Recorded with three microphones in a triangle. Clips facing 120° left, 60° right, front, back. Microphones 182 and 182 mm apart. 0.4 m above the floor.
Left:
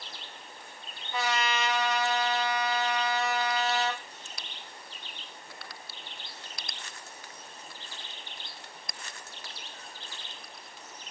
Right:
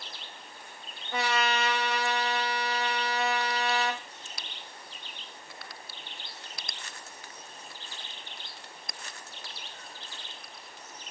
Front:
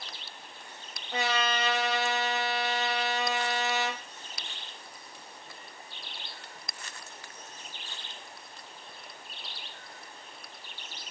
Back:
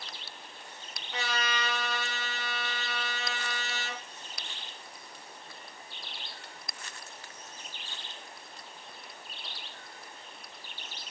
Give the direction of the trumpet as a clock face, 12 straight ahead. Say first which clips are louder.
Right 1 dB, front 5 dB; 1 o'clock.